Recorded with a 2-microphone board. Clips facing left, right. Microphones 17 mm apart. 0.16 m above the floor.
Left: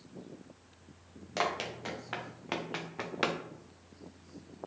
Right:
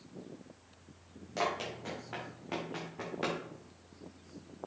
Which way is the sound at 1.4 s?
35° left (ahead or behind).